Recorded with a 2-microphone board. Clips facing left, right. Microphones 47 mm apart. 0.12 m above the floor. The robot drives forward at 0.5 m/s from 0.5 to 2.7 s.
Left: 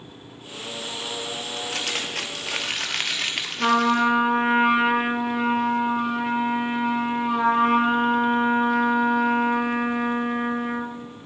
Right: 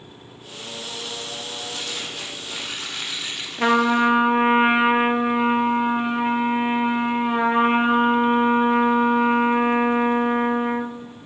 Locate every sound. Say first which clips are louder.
1.6 s crumpling: left 5 dB; 60° left (ahead or behind), 1.2 m
3.6 s a trumpet: right 2 dB; 35° right (ahead or behind), 0.8 m